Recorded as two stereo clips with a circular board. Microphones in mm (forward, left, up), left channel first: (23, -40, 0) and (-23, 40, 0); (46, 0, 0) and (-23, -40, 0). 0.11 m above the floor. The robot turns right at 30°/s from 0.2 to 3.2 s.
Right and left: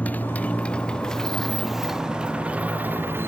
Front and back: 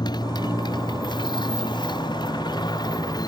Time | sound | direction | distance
0.0 | a motorcycle | 15° left | ?